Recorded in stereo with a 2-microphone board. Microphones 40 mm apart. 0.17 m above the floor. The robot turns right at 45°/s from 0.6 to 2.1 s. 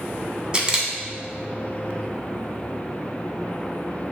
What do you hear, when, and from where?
0.5 s a camera shutter: 20° right (ahead or behind), 0.6 m